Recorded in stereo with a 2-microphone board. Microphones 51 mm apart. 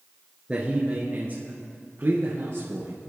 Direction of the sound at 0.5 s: 20° right (ahead or behind).